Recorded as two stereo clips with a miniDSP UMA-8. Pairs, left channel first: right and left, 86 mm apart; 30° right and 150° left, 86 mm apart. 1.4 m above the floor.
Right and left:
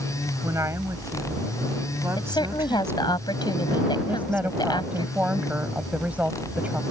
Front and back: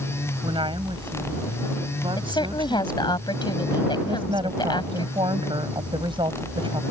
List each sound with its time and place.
0.4 s a woman speaking: 145° left; by 3.2 s 150° left
2.2 s a woman speaking: 60° right
4.0 s a woman speaking: 165° left